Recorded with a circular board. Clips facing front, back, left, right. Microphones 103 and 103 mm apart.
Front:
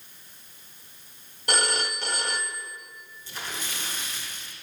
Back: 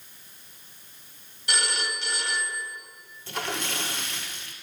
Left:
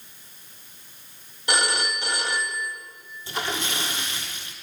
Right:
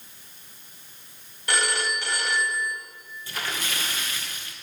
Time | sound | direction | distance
1.5 | a phone ringing | 25° left | 0.9 m
3.3 | a splash | 155° left | 1.2 m